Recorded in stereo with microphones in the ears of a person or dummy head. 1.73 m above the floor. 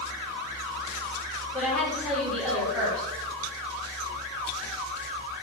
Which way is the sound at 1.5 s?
5° left (ahead or behind).